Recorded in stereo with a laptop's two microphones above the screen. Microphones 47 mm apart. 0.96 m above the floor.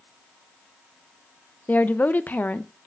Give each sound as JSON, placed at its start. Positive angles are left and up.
{"t": 1.7, "sound": "a woman speaking", "side_deg": 35, "distance_m": 0.5}